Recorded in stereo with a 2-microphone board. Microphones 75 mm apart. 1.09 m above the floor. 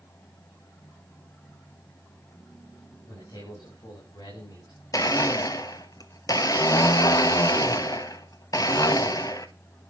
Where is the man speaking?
60° left (ahead or behind), 6 m.